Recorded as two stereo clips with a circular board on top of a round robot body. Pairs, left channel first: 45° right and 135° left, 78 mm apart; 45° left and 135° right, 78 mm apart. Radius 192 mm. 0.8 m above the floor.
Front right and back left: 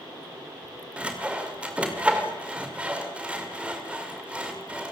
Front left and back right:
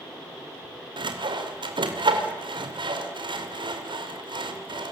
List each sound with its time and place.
1.0 s sawing: 150° right, 2.5 m